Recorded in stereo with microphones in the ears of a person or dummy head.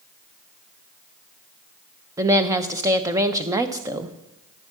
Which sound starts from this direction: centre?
A woman speaking, at 2.2 s.